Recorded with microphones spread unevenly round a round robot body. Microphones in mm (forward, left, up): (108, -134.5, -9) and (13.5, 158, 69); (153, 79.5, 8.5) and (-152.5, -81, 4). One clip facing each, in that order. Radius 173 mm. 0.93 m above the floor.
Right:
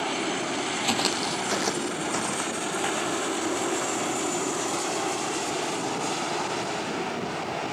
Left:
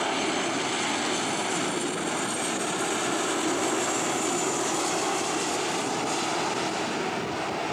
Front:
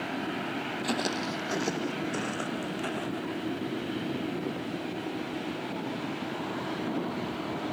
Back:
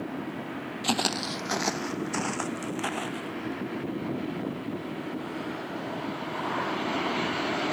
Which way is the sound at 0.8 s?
85° right.